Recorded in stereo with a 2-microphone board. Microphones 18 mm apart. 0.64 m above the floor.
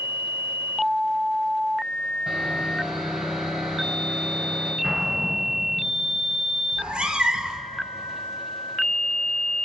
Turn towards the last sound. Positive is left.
turn(degrees=-80)